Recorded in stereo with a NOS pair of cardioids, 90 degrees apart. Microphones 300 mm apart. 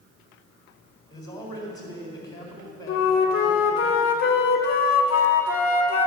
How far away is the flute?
About 1.3 m.